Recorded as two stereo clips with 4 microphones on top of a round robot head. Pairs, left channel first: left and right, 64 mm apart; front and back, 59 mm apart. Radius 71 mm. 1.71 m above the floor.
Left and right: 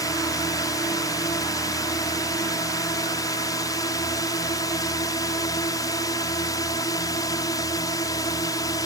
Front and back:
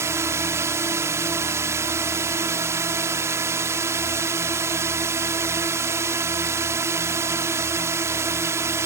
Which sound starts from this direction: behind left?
A drone, at 0.0 s.